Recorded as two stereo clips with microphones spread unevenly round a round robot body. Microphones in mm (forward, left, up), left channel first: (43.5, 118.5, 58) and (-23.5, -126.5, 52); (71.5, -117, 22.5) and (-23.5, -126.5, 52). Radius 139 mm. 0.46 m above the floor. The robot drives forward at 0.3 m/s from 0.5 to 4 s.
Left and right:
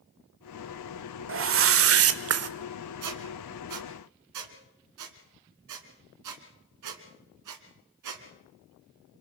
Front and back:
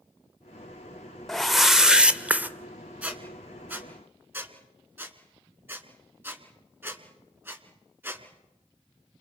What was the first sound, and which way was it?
A whoosh, 75° right.